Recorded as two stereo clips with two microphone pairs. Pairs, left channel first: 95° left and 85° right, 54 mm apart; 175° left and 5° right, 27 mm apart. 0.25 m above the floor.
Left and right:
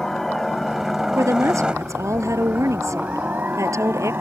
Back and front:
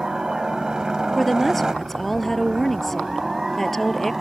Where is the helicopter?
20° left; by 4.2 s 80° right.